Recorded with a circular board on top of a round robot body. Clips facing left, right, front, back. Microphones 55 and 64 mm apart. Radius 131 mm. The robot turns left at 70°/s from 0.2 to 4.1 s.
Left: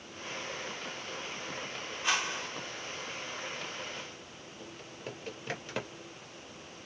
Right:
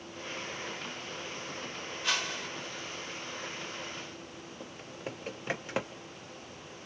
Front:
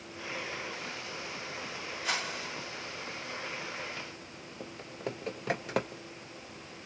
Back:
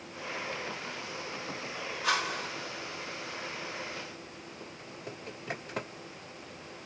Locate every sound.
2.0 s a whoosh: 170° left, 3 m; by 2.5 s 140° left, 3 m
4.6 s typing on a keyboard: 20° right, 0.6 m